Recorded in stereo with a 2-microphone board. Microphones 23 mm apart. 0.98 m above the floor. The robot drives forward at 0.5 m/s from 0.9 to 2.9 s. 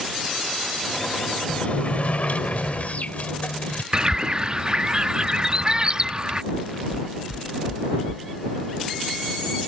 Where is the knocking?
85° left.